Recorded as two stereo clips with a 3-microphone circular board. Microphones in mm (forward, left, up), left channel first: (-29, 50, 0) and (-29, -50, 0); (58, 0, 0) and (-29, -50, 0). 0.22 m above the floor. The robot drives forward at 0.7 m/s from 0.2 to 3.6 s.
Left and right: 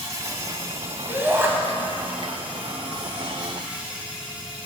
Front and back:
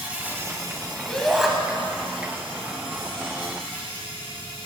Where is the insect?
90° right, 0.8 m; by 4.7 s 170° right, 2.5 m.